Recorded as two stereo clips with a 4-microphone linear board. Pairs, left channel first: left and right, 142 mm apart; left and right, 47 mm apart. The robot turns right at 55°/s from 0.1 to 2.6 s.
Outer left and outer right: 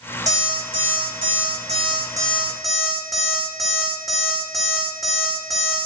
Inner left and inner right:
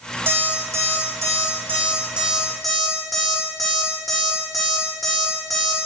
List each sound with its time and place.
0.3 s an alarm clock: 50° right (ahead or behind), 6.5 m; by 5.9 s centre (ahead or behind), 6.5 m